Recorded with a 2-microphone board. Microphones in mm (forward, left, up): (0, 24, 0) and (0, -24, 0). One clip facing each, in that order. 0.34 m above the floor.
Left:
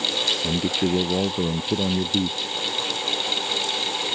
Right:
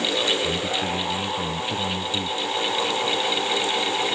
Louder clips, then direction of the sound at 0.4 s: Left 1 dB; 75° left (ahead or behind).